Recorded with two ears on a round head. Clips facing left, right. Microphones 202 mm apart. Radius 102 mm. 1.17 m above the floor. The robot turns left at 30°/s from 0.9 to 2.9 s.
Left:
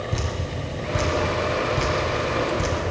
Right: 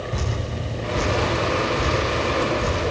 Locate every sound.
0.1 s dripping: 30° left (ahead or behind), 7.5 m; by 2.8 s 85° left, 7.5 m